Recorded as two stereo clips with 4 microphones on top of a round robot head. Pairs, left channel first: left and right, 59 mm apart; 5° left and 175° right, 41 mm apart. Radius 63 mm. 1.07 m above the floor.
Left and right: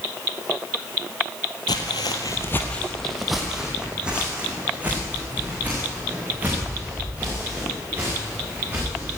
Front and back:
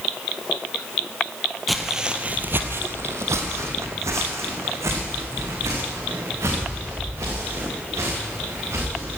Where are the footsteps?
95° left, 1.7 m; by 9.2 s 155° right, 11 m.